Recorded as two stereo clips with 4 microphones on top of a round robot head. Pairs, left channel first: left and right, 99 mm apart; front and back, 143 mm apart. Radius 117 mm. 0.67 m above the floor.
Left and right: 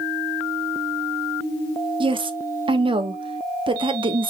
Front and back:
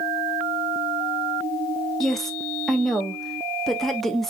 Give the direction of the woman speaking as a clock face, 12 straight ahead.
3 o'clock.